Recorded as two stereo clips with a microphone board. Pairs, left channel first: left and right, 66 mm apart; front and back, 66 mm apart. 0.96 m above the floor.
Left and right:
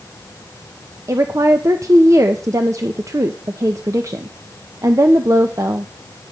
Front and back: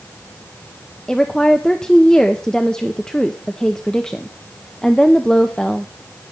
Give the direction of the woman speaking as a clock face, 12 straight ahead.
3 o'clock.